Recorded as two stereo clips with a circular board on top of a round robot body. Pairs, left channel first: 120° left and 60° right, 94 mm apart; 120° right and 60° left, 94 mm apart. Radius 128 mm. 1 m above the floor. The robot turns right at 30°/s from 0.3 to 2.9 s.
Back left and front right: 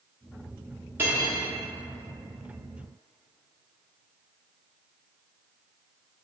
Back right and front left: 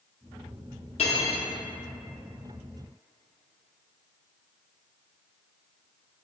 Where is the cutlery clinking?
130° right, 0.7 m; by 1.4 s 115° right, 0.7 m.